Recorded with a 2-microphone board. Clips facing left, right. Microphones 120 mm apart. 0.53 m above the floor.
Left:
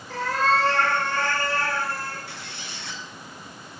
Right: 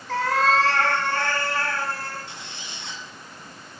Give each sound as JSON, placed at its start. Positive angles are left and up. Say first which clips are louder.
{"t": 0.1, "sound": "a cat meowing", "louder": "right 2 dB", "side_deg": -85, "distance_m": 2.5}
{"t": 2.3, "sound": "a squeak", "louder": "left 1 dB", "side_deg": -20, "distance_m": 2.0}